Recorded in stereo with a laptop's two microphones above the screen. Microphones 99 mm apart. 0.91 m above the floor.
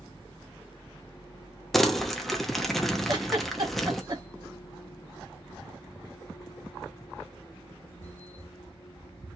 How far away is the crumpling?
About 0.8 m.